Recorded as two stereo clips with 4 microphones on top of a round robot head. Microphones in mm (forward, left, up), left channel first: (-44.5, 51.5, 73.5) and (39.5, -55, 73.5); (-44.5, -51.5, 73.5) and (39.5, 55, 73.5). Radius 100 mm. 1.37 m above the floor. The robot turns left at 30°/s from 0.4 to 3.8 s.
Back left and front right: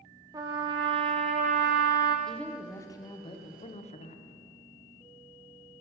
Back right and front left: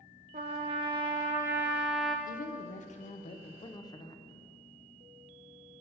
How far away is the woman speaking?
About 0.8 m.